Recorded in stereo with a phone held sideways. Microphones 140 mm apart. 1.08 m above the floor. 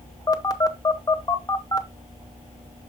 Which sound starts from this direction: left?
A phone buzzing, at 0.3 s.